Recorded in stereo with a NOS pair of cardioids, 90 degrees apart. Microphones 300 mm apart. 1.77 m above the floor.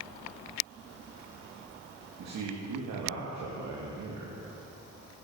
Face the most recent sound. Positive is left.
turn(degrees=-65)